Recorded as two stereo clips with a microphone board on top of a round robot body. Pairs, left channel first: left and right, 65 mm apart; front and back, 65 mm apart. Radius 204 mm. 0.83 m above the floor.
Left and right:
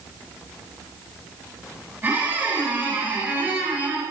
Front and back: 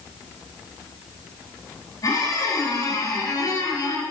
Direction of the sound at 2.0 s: 25° right.